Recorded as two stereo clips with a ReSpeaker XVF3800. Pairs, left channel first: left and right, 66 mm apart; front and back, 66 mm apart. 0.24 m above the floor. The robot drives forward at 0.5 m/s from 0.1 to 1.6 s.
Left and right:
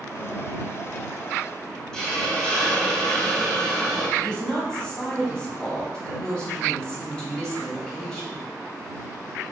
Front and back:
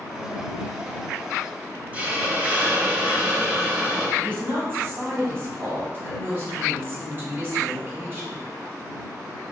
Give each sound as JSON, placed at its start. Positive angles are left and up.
{"t": 1.9, "sound": "a hiss", "azimuth_deg": 150, "distance_m": 1.0}
{"t": 4.2, "sound": "a woman speaking", "azimuth_deg": 155, "distance_m": 1.9}